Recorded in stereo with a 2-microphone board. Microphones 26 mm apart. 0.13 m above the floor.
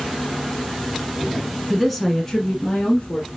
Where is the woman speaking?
10° right (ahead or behind), 1.1 m; by 3.3 s 45° left (ahead or behind), 1.5 m.